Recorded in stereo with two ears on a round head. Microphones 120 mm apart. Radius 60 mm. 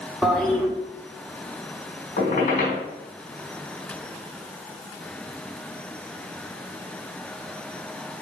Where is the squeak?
65° left (ahead or behind), 3.5 m.